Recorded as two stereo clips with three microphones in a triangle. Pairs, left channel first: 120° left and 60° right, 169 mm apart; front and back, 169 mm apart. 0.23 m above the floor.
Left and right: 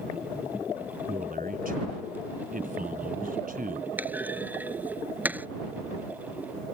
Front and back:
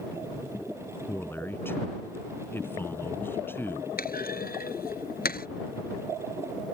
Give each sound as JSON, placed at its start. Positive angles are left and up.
{"t": 1.1, "sound": "a man speaking", "azimuth_deg": -75}
{"t": 4.0, "sound": "a clunk", "azimuth_deg": 20}